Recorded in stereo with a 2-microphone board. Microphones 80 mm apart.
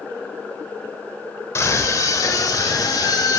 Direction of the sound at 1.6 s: 40° left (ahead or behind).